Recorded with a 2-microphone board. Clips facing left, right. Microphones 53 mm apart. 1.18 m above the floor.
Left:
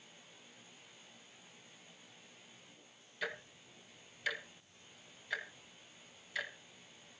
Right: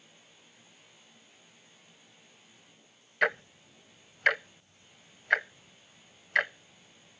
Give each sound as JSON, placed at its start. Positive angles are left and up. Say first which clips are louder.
{"t": 3.2, "sound": "ticking", "louder": "right 14 dB", "side_deg": -55, "distance_m": 0.6}